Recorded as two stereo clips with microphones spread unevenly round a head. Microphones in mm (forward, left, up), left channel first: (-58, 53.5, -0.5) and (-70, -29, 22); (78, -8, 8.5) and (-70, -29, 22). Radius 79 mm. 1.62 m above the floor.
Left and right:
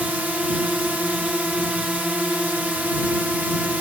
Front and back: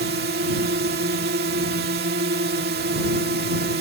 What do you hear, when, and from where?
0.0 s a drone: 175° right